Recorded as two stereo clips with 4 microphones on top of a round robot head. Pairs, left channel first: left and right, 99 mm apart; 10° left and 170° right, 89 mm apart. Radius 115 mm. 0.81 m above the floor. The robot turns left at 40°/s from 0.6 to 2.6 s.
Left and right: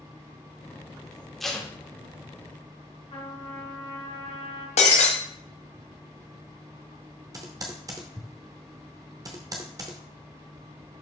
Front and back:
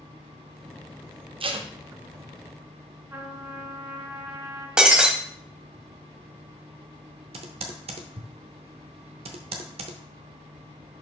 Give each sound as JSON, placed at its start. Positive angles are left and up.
{"t": 1.4, "sound": "tape being pulled", "azimuth_deg": 180, "distance_m": 1.2}
{"t": 3.1, "sound": "a trumpet", "azimuth_deg": 130, "distance_m": 3.0}
{"t": 4.8, "sound": "breaking glass", "azimuth_deg": 110, "distance_m": 1.1}
{"t": 7.3, "sound": "typing on a keyboard", "azimuth_deg": -150, "distance_m": 0.9}